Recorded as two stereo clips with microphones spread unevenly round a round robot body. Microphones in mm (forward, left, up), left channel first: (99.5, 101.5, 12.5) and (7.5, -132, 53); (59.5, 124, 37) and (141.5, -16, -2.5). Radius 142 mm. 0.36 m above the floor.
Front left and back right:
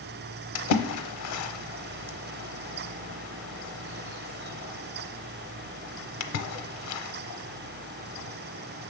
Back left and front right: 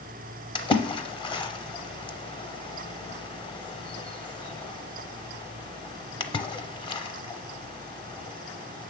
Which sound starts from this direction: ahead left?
A splash, at 0.6 s.